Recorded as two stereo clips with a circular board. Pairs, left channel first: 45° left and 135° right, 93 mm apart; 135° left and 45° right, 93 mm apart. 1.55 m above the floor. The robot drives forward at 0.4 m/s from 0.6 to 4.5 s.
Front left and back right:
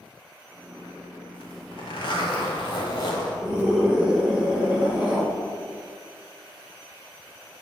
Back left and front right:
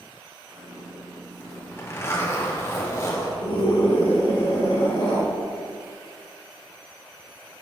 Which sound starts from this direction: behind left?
A scream, at 3.4 s.